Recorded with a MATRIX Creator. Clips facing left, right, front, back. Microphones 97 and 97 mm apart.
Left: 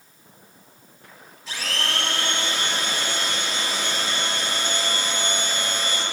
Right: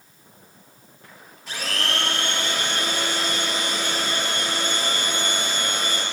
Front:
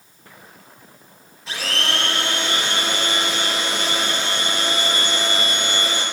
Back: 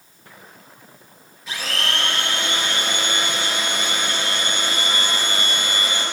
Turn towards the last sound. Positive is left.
turn(degrees=-60)